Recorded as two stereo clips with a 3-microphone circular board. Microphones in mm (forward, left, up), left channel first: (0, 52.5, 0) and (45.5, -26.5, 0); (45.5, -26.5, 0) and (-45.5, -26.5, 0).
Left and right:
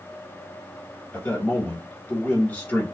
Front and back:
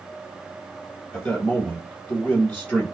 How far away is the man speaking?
About 1.7 m.